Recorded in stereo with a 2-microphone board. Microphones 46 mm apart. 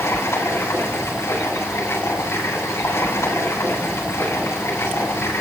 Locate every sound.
0.0 s running water: 85° left, 9 m